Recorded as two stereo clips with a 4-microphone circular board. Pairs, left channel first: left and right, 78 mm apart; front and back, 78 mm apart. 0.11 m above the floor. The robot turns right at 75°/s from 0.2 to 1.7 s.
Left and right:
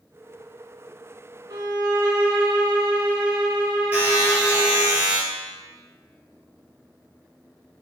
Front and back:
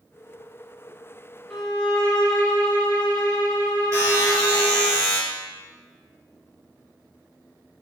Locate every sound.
1.5 s a violin: 85° right, 0.9 m; by 4.9 s 70° right, 0.9 m
3.9 s a buzzer: 155° right, 1.9 m